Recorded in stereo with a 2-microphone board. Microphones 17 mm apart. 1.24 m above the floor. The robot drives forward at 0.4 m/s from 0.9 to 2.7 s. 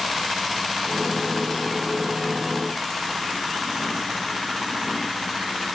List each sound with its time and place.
Only background noise.